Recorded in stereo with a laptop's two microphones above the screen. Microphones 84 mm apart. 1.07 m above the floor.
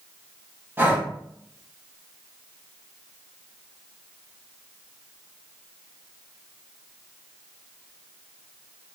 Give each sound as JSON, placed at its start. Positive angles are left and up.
{"t": 0.8, "sound": "breathing", "side_deg": -25, "distance_m": 0.9}